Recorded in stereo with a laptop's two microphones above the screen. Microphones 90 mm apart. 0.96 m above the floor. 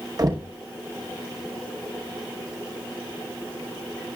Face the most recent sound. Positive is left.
turn(degrees=-45)  # may be behind; listen again after turning